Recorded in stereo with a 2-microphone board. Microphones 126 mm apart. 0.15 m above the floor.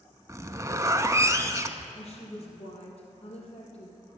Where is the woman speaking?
55° left (ahead or behind), 3.5 m.